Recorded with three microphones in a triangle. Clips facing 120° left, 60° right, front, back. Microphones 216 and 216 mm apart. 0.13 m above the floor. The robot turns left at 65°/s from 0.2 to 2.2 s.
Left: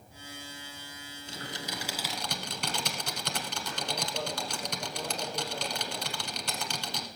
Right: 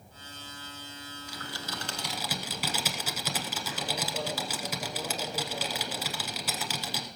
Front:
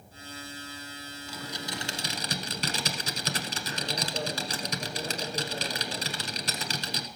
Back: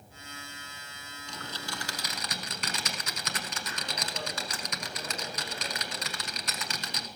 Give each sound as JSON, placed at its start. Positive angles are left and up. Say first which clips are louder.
{"t": 1.3, "sound": "typing on a keyboard", "louder": "left 2 dB, front 3 dB", "azimuth_deg": 85, "distance_m": 1.1}